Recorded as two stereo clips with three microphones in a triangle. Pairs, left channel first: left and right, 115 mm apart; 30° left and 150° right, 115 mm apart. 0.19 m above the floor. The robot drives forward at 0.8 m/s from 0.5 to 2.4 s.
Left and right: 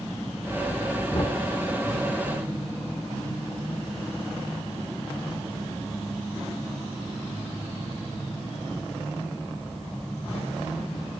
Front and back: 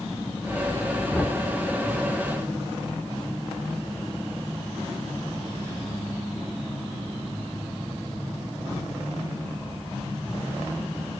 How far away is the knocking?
About 1.5 m.